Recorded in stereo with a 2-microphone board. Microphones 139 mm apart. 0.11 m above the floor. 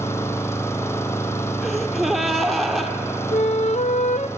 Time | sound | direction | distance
0.0 | an engine running | 20° left (ahead or behind) | 1.2 m
1.6 | a gasp | centre (ahead or behind) | 1.6 m
3.3 | a flute | 55° left (ahead or behind) | 0.6 m